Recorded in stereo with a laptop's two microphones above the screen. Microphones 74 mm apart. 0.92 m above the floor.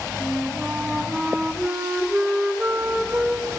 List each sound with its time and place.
0.2 s a flute: 15° right (ahead or behind), 0.5 m